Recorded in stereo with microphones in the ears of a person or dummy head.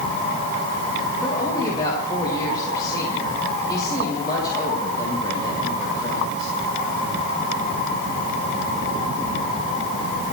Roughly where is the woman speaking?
Left.